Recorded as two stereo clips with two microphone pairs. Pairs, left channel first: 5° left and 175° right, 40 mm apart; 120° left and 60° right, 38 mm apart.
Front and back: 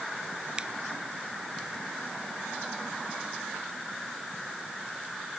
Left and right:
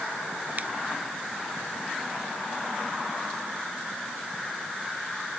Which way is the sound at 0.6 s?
105° right.